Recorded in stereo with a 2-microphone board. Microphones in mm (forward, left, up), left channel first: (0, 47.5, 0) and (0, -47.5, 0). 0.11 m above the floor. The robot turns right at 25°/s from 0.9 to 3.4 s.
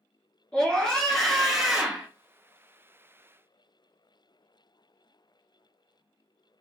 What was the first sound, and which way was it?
A scream, 5° left (ahead or behind).